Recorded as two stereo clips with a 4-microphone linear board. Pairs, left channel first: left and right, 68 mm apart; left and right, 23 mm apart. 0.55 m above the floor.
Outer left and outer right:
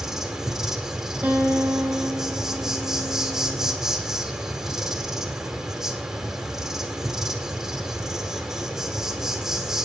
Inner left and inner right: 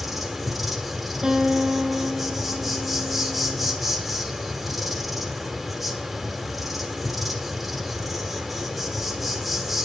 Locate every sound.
0.0 s an insect: 5° right (ahead or behind), 1.8 m
1.2 s a guitar: 25° right (ahead or behind), 2 m